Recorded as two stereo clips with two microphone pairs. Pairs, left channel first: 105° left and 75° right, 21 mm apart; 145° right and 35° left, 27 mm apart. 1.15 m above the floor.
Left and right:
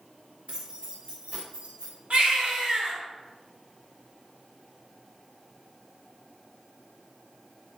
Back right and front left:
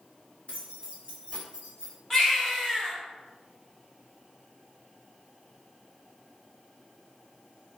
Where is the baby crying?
70° right, 1.5 m.